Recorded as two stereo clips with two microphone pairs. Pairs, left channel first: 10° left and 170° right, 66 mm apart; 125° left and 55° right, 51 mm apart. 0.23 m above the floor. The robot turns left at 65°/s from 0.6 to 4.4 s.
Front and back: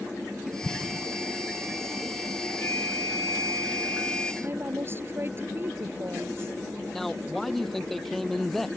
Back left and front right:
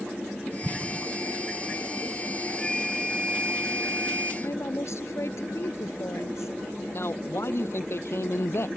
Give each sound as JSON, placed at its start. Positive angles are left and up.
{"t": 0.6, "sound": "an explosion", "azimuth_deg": -55}
{"t": 2.6, "sound": "a flute", "azimuth_deg": 55}
{"t": 4.4, "sound": "a woman speaking", "azimuth_deg": 140}
{"t": 6.9, "sound": "a man speaking", "azimuth_deg": 95}